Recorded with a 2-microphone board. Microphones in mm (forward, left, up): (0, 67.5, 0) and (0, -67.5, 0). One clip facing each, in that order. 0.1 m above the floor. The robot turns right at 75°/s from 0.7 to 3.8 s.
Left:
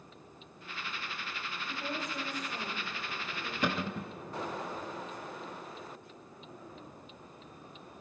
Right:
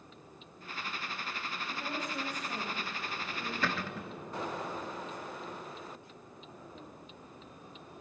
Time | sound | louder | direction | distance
1.7 | a woman speaking | left 1 dB | 170° left | 8 m
3.6 | a cupboard door | left 5 dB | 20° left (ahead or behind) | 0.6 m